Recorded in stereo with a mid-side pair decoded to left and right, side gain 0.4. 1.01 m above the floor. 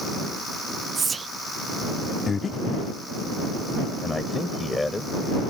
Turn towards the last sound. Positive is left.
turn(degrees=15)